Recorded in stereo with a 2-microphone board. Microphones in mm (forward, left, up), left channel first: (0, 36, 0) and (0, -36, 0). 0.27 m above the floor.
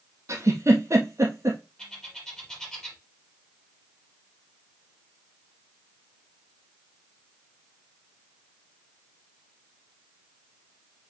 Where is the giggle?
40° right (ahead or behind), 2.0 m.